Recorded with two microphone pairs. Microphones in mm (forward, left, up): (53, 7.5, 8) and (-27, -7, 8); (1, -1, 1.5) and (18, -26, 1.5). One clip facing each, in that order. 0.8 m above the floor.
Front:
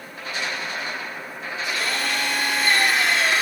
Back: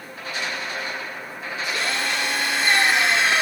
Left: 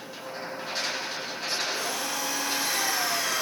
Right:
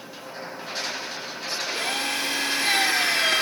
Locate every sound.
1.7 s a drill: 105° right, 6 m